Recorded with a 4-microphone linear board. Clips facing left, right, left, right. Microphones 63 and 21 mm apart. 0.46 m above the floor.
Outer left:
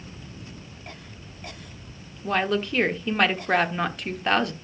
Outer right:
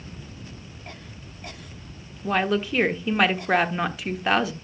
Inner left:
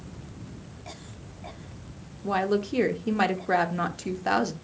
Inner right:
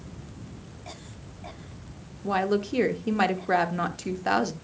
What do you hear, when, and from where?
2.2 s a woman speaking: 5° right (ahead or behind), 0.7 m